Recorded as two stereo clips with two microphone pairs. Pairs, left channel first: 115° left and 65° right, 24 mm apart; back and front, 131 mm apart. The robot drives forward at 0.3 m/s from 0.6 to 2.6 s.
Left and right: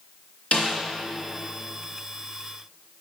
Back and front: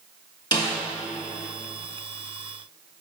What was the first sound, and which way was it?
A snare drum, 120° left.